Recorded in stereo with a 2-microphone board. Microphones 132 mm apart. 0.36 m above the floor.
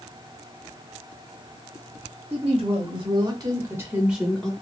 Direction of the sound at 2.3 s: 50° right (ahead or behind).